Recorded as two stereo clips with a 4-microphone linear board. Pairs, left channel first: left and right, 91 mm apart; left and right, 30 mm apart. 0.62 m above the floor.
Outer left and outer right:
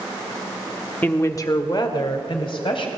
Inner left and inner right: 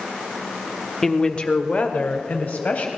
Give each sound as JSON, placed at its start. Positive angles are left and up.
{"t": 1.0, "sound": "a woman speaking", "side_deg": 20, "distance_m": 1.0}